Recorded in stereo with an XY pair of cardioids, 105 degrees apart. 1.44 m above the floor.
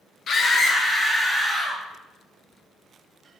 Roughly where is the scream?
Ahead left.